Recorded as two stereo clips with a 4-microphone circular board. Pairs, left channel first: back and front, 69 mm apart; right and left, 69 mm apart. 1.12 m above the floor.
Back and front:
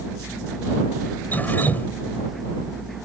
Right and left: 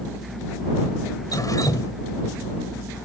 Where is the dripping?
115° right.